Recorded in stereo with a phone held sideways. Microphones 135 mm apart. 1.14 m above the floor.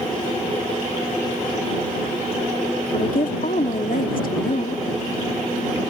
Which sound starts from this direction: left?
A woman speaking, at 2.9 s.